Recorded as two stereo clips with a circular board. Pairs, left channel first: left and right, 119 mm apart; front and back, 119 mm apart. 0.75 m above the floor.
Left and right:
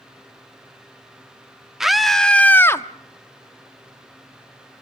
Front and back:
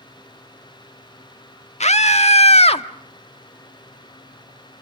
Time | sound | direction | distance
1.8 | a scream | 5° right | 1.4 m